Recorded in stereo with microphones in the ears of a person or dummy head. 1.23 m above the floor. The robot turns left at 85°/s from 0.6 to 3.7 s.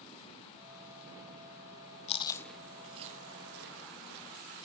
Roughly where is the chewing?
Left.